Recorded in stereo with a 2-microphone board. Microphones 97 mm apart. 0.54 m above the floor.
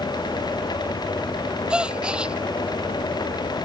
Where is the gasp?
10° right (ahead or behind).